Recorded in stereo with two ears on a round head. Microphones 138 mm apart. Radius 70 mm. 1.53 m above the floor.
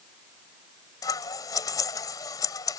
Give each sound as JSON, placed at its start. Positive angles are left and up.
{"t": 1.0, "sound": "scissors", "side_deg": 20}